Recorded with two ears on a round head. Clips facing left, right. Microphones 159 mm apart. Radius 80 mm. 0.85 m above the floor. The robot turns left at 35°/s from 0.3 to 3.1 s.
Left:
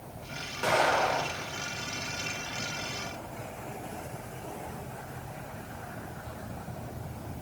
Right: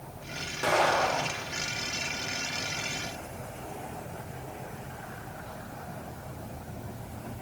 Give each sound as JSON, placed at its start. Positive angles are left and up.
{"t": 0.6, "sound": "an explosion", "azimuth_deg": -165, "distance_m": 2.5}